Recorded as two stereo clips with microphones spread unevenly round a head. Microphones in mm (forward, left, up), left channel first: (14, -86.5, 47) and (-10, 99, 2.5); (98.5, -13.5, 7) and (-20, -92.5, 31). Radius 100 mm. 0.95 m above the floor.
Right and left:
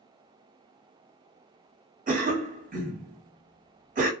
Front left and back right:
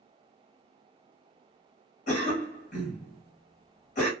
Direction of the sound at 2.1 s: 60° left.